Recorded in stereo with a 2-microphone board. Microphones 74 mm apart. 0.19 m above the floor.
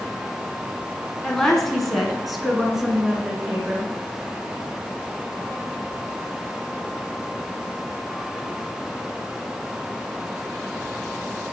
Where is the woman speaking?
10° left (ahead or behind), 2 m; by 3.9 s 10° right (ahead or behind), 3 m.